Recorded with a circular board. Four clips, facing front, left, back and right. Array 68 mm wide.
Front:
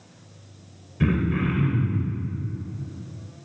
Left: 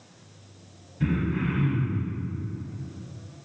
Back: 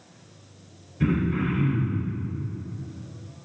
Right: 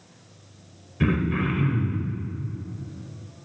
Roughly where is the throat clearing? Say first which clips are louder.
Right 3 dB, front 1 dB; ahead right.